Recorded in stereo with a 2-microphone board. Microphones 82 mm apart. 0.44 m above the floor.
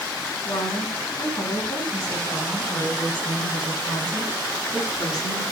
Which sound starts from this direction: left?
A woman speaking, at 0.5 s.